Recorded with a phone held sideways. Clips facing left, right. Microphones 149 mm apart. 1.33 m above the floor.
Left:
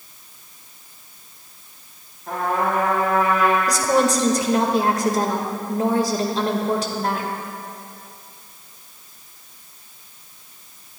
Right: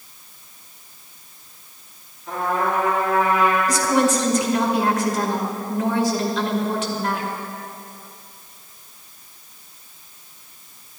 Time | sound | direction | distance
2.3 | a trumpet | 55° left (ahead or behind) | 5 m
3.7 | a woman speaking | 35° left (ahead or behind) | 1.6 m